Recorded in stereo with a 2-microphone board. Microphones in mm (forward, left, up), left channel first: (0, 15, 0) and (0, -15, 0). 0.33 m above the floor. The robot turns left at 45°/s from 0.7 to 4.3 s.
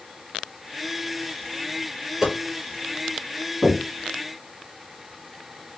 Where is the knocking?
75° right (ahead or behind), 3.5 m.